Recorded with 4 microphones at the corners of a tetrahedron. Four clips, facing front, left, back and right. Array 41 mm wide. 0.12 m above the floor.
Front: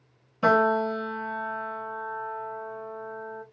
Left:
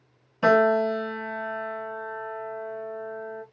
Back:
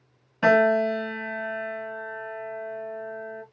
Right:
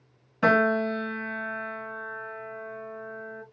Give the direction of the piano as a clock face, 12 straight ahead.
5 o'clock.